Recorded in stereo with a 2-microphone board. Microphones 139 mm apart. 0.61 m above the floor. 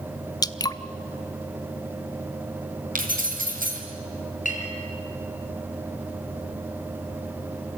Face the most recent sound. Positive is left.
turn(degrees=65)  # may be behind; listen again after turning